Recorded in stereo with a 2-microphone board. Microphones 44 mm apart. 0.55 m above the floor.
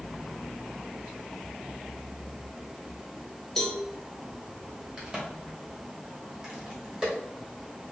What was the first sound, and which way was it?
A cowbell, 10° left (ahead or behind).